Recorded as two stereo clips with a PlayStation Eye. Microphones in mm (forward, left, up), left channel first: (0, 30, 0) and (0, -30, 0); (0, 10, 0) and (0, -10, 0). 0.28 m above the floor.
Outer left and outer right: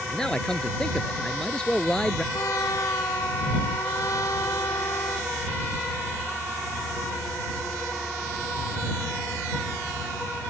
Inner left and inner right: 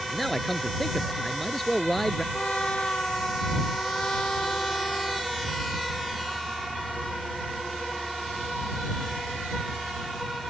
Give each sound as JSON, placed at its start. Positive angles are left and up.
{"t": 0.1, "sound": "a man speaking", "side_deg": 10}
{"t": 2.3, "sound": "a trumpet", "side_deg": 60}